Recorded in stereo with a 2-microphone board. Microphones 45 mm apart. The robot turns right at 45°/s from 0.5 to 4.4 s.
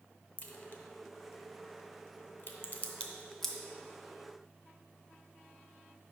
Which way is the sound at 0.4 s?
40° left (ahead or behind).